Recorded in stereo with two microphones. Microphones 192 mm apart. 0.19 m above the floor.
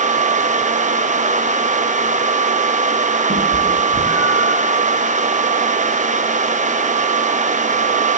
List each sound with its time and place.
3.3 s a cat meowing: 55° right (ahead or behind), 3 m; by 4.6 s 25° right (ahead or behind), 1.8 m